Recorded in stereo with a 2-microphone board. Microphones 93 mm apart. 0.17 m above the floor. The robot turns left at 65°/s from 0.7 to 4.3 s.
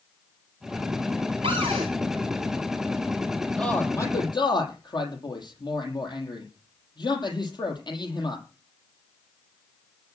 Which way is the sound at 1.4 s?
75° right (ahead or behind).